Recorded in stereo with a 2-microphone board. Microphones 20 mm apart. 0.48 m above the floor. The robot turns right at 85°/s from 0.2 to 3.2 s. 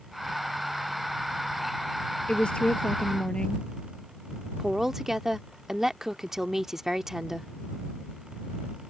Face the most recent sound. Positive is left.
turn(degrees=-20)  # may be behind; listen again after turning